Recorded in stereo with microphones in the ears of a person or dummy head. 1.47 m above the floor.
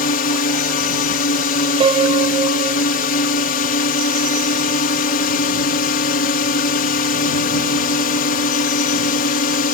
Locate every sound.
0.0 s a drone: 50° left (ahead or behind)
1.8 s a piano: 25° right (ahead or behind)